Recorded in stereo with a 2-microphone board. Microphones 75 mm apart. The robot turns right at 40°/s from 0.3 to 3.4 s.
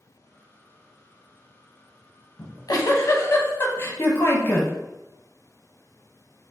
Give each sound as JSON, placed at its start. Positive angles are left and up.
{"t": 2.4, "sound": "a giggle", "azimuth_deg": 105, "distance_m": 0.7}